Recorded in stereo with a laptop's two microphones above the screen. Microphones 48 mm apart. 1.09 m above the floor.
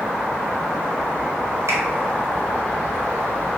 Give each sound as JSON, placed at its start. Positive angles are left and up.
{"t": 1.7, "sound": "a finger snap", "side_deg": -85, "distance_m": 1.3}